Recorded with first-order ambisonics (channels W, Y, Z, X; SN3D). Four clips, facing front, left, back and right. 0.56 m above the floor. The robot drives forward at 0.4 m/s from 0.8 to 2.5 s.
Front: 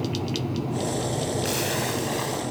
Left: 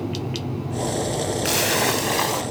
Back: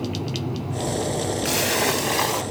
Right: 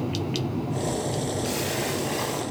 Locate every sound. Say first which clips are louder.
1.4 s a splash: left 7 dB, back 5 dB; 105° left, 0.6 m; by 2.4 s 140° left, 0.8 m